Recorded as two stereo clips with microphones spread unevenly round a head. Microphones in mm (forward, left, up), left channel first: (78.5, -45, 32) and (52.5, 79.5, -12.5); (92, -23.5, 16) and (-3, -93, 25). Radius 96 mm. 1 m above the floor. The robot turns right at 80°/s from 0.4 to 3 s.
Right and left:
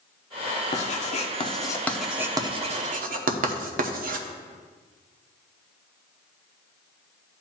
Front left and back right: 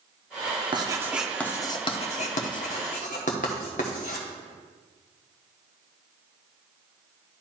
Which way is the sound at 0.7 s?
100° right.